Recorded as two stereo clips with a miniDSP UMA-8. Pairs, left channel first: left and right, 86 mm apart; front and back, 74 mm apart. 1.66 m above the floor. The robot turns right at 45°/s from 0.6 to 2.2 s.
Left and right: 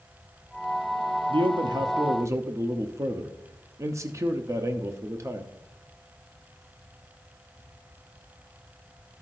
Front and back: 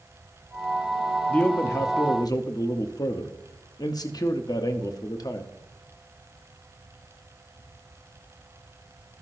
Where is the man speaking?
75° right, 0.6 m; by 5.5 s 35° right, 0.6 m.